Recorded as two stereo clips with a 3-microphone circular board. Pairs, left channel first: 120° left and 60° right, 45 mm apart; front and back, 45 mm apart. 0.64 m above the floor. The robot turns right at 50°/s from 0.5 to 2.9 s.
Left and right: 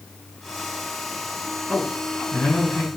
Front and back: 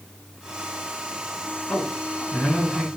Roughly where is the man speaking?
Ahead left.